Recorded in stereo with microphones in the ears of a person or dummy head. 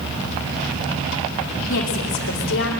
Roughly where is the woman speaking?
Left.